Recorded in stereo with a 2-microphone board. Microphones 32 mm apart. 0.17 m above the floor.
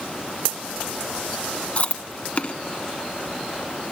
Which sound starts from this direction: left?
Chewing, at 1.8 s.